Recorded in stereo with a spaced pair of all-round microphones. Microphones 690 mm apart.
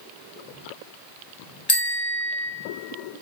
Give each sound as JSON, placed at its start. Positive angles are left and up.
{"t": 1.7, "sound": "a bicycle bell", "side_deg": 35, "distance_m": 2.5}